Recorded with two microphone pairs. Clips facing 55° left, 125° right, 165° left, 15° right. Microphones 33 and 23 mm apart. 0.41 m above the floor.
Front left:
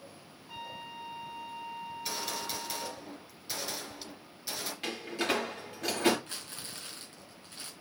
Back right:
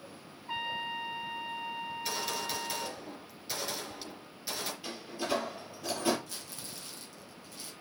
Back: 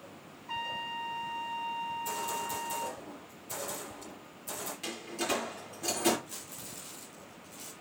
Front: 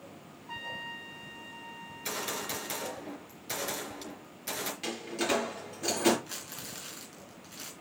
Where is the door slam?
60° left, 5.5 m.